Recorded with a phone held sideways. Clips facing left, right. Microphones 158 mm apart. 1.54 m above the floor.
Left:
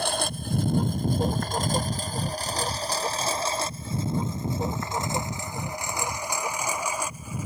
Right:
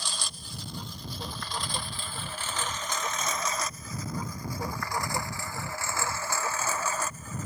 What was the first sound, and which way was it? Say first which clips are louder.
A lawn mower: left 13 dB; 60° left (ahead or behind).